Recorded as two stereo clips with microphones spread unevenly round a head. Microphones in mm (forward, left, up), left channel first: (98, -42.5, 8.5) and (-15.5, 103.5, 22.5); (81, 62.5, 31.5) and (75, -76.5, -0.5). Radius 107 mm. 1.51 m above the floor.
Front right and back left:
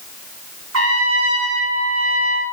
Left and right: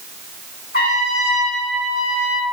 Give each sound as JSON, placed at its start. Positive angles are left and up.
{"t": 0.7, "sound": "a trumpet", "azimuth_deg": 135, "distance_m": 1.4}